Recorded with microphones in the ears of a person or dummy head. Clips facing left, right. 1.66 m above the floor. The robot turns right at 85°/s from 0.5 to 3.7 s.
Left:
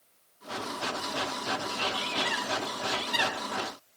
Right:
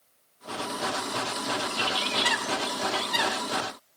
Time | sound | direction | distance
1.7 | a bird | 125° right | 1.9 m